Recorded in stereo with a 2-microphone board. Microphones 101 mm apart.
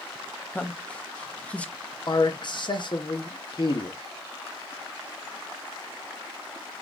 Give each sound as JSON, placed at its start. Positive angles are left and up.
{"t": 0.5, "sound": "a man speaking", "side_deg": 10, "distance_m": 0.8}
{"t": 2.1, "sound": "a man speaking", "side_deg": 50, "distance_m": 0.9}